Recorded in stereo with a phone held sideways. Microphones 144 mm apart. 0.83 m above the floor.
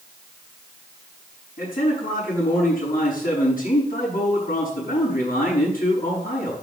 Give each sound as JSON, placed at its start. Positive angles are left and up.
{"t": 1.6, "sound": "a man speaking", "side_deg": 75, "distance_m": 6.0}